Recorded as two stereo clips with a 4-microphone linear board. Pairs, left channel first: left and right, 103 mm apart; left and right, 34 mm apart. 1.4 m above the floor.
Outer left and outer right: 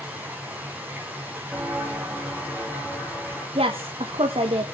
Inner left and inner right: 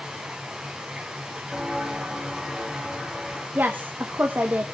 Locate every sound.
0.0 s running water: 15° right (ahead or behind), 4.5 m
1.5 s footsteps: 15° right (ahead or behind), 3 m; by 3.5 s centre (ahead or behind), 5.5 m
3.5 s a woman speaking: 70° right (ahead or behind), 1.8 m